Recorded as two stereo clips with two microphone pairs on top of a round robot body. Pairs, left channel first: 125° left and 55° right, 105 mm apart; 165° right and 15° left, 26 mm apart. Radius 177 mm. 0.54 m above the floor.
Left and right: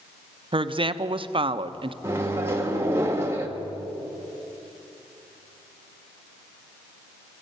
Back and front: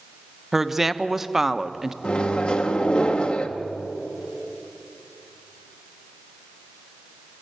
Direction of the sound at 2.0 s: 120° right.